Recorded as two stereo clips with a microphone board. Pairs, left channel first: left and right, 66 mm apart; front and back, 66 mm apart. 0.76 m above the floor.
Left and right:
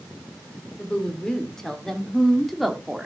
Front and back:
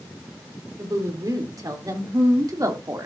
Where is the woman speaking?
165° left, 3 m; by 3.1 s 175° right, 2 m.